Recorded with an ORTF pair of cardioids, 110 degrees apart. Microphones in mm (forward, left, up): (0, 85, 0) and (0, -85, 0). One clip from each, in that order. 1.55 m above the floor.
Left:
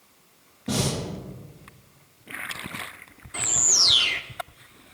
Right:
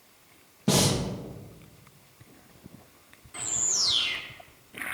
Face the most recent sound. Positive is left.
turn(degrees=40)